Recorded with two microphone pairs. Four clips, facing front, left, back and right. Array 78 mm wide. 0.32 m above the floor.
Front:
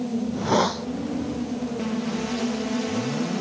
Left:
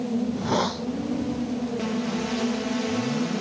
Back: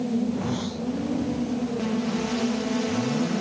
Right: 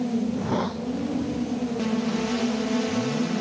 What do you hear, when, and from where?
0.2 s a hiss: 20° left